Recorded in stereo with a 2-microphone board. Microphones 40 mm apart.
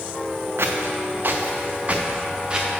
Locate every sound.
0.6 s footsteps: 80° right, 1.0 m; by 2.7 s 20° right (ahead or behind), 1.7 m